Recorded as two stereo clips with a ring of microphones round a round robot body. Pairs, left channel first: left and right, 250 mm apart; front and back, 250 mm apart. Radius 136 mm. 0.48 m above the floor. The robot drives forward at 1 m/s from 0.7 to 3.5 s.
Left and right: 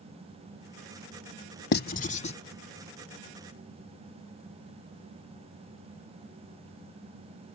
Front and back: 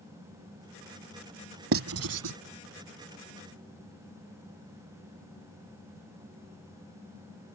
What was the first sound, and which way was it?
Writing, 140° left.